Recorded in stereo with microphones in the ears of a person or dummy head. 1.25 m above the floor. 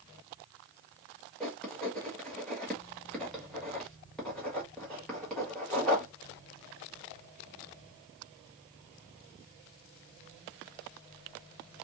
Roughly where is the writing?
Centre.